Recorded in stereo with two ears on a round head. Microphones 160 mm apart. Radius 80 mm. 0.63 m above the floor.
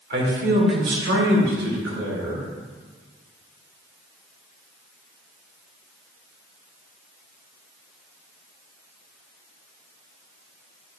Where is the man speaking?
55° right (ahead or behind), 1.8 m; by 2.5 s 80° right, 4 m.